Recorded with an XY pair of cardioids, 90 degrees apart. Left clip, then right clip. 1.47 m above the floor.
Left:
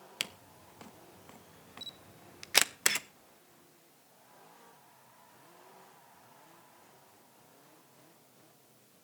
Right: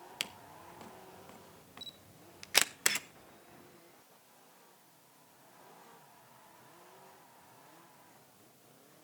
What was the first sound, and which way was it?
A camera shutter, 15° left.